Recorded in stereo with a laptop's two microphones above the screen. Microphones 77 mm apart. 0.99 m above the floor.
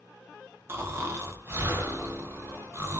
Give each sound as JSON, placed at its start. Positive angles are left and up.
{"t": 0.7, "sound": "snoring", "side_deg": -30, "distance_m": 0.5}